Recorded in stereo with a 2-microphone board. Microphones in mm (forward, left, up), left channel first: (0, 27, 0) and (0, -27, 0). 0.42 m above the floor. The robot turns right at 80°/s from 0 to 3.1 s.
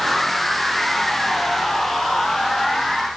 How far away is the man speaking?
No man speaking in this recording.